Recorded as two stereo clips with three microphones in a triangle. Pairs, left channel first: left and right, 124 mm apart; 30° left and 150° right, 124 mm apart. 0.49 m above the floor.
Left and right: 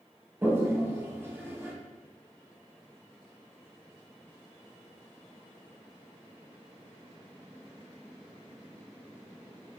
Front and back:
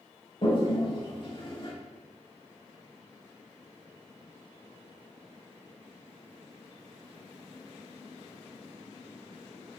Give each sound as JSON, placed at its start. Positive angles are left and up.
{"t": 0.4, "sound": "a toilet flushing", "azimuth_deg": -20, "distance_m": 0.8}